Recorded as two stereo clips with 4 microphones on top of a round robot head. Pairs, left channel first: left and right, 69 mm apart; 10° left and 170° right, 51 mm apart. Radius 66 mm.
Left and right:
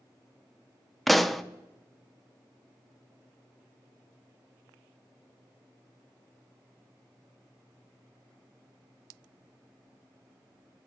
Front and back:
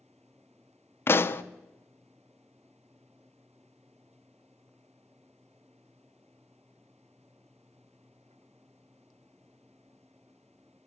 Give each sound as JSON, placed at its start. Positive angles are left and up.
{"t": 1.1, "sound": "a pop", "azimuth_deg": 0, "distance_m": 0.7}